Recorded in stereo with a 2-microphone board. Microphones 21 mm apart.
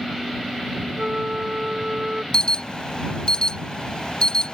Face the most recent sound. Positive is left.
turn(degrees=45)  # may be behind; listen again after turning